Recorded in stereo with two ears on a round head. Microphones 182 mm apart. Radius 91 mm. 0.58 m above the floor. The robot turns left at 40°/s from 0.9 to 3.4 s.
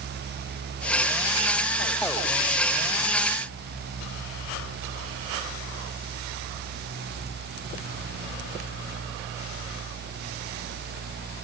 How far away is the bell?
I don't hear a bell.